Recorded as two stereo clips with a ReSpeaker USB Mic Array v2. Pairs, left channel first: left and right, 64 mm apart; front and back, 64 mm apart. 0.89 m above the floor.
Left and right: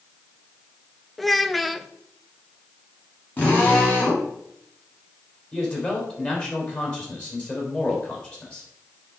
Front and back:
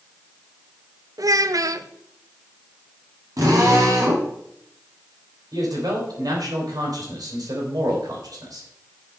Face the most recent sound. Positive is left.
turn(degrees=155)